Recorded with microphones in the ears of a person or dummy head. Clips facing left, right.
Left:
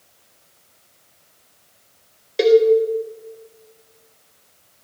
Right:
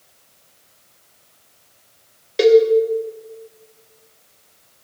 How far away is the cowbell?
About 1.6 m.